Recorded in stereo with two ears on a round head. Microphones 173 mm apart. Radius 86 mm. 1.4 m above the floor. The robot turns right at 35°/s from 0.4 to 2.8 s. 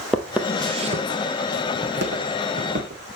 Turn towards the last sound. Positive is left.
turn(degrees=-40)  # may be behind; listen again after turning